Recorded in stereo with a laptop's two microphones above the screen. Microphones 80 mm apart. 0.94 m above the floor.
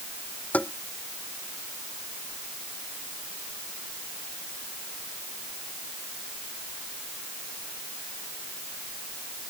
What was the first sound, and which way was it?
Tapping, 20° left (ahead or behind).